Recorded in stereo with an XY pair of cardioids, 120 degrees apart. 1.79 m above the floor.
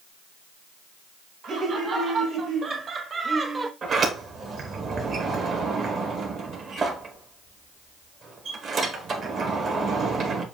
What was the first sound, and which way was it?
Laughter, 45° right.